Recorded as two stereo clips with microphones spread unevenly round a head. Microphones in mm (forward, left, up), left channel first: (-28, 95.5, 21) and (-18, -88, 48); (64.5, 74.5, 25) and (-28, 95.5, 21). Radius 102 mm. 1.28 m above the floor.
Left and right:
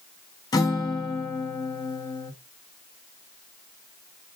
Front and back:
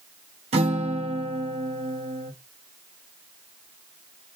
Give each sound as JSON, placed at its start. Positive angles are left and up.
{"t": 0.5, "sound": "a guitar", "azimuth_deg": 165, "distance_m": 0.9}